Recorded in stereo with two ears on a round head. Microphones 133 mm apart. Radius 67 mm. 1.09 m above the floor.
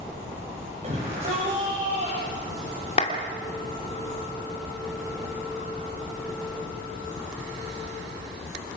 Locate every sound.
0.8 s a shout: 45° right (ahead or behind), 5.5 m; by 3.0 s 50° right (ahead or behind), 7.5 m
3.0 s a clap: 40° left (ahead or behind), 2.5 m